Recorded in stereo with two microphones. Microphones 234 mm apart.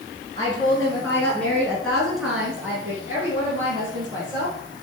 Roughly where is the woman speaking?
Centre.